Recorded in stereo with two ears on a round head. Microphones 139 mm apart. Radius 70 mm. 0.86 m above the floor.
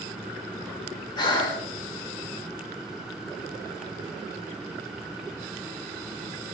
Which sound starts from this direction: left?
Breathing, at 1.2 s.